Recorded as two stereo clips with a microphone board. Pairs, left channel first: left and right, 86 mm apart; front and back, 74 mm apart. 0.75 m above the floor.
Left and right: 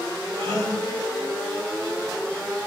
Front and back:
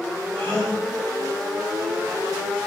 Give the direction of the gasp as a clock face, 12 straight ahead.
3 o'clock.